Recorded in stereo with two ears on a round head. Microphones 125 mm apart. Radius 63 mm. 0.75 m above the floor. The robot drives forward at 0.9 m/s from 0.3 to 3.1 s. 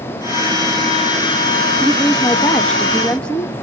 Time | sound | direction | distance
1.8 | a woman speaking | 5° left (ahead or behind) | 1.1 m